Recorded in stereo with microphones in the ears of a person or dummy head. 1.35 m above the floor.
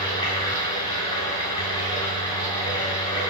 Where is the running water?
25° left (ahead or behind), 3 m.